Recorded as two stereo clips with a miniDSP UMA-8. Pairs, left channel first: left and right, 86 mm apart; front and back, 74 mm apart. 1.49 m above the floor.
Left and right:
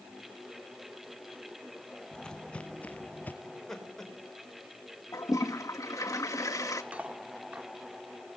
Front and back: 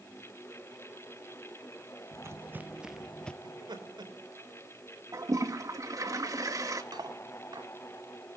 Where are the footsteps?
170° left, 2 m; by 3.3 s 55° left, 1.6 m.